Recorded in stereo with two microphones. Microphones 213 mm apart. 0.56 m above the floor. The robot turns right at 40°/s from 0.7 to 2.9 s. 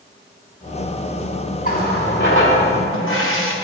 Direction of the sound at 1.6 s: 40° left.